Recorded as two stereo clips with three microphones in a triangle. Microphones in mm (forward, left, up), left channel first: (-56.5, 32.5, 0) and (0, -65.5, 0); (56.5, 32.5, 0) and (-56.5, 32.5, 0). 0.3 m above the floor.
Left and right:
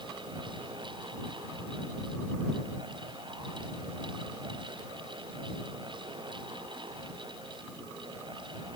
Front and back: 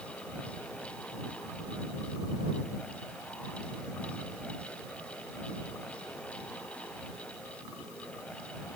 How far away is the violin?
I don't hear a violin.